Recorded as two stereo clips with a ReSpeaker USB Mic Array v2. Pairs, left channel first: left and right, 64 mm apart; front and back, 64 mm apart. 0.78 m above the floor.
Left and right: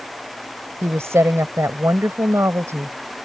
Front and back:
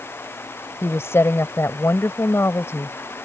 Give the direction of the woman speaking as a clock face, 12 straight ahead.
2 o'clock.